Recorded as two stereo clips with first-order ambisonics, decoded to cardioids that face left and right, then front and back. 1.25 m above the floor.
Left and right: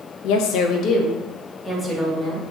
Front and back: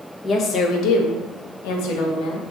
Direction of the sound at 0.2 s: 70° left.